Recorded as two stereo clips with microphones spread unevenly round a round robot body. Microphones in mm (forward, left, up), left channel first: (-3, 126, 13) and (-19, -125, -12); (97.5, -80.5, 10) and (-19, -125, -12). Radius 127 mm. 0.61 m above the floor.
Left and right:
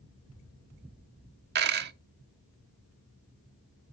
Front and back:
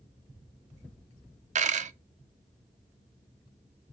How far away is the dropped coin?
About 0.6 m.